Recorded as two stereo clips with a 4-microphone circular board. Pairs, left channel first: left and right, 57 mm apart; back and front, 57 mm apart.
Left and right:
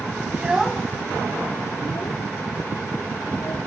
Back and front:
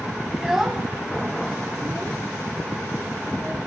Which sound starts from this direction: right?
A child speaking, at 0.3 s.